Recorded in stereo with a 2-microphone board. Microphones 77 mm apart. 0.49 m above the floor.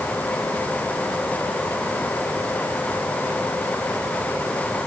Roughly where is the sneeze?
I don't hear a sneeze.